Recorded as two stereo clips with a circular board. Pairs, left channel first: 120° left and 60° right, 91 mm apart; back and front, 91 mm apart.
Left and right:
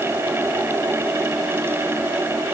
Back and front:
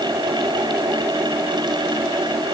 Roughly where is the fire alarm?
I don't hear a fire alarm.